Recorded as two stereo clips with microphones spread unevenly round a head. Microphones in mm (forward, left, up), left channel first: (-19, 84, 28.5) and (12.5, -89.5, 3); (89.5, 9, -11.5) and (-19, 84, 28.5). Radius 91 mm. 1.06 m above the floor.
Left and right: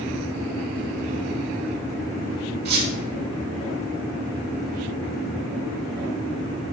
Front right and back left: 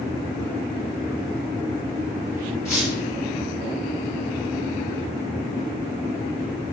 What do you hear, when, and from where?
2.6 s a squeak: 115° right, 4.5 m